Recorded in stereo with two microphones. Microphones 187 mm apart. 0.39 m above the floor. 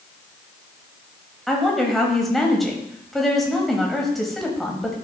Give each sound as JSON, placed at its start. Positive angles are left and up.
{"t": 1.5, "sound": "a woman speaking", "side_deg": 0, "distance_m": 1.6}